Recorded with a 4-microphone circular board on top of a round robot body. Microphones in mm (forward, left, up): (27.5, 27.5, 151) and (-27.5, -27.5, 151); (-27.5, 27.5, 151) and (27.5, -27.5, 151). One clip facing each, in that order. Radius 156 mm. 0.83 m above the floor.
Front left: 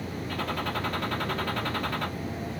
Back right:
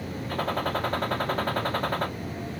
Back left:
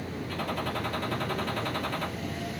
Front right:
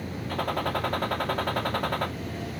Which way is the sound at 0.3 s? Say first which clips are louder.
Back right 4 dB, front right 5 dB; 85° right.